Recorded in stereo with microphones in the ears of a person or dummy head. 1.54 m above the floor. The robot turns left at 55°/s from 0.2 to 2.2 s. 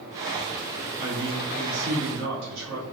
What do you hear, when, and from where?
1.0 s a man speaking: 45° right, 1.0 m; by 2.8 s 110° right, 1.0 m